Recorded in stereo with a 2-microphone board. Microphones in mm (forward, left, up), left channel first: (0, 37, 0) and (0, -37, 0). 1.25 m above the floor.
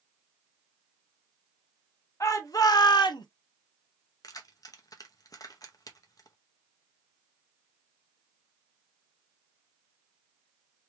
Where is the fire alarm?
I don't hear a fire alarm.